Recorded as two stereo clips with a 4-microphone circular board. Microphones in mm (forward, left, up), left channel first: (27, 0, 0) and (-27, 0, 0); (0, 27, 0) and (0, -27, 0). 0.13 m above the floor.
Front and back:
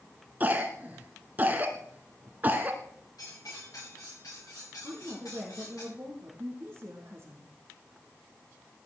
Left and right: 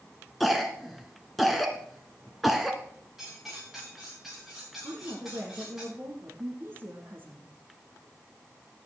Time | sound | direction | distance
0.4 | a cough | straight behind | 1.5 m
3.2 | cutlery clinking | 5° right | 10 m
4.8 | a woman speaking | 125° right | 4.5 m